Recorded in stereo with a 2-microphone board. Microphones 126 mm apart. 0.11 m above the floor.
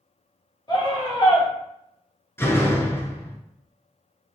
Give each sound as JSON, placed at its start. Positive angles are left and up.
{"t": 0.7, "sound": "a scream", "side_deg": 35, "distance_m": 1.5}
{"t": 2.4, "sound": "a door slam", "side_deg": 20, "distance_m": 0.8}